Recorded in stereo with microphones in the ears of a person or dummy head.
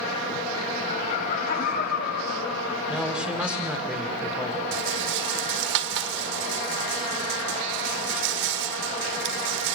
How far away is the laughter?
About 7 m.